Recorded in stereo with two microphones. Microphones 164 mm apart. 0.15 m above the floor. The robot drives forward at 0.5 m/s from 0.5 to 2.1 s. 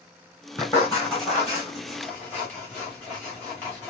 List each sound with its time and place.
0.6 s writing: 20° left (ahead or behind), 4 m; by 3.9 s 15° left (ahead or behind), 5 m